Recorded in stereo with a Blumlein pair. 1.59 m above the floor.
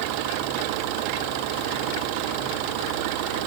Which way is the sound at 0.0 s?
45° right.